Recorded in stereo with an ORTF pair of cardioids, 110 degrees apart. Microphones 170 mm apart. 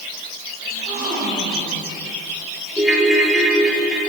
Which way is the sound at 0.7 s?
55° right.